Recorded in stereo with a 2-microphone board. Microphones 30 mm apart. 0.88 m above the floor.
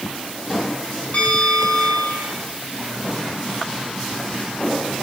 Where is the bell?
55° left (ahead or behind), 7 m.